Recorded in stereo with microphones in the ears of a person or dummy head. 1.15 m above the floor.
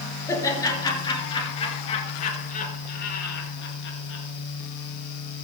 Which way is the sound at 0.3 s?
20° left (ahead or behind).